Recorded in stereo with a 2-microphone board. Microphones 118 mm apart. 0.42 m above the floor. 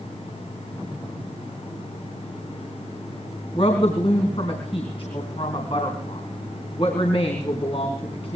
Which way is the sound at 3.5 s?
50° left (ahead or behind).